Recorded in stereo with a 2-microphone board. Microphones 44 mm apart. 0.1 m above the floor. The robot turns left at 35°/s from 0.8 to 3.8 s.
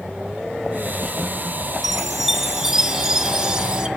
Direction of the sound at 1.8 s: Centre (ahead or behind).